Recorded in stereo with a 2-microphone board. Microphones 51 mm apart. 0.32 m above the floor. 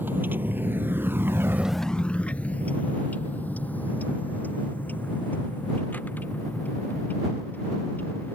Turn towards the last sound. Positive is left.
turn(degrees=35)  # may be behind; listen again after turning